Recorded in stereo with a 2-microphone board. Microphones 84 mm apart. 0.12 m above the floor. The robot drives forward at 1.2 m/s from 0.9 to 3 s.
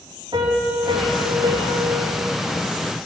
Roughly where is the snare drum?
No snare drum in this recording.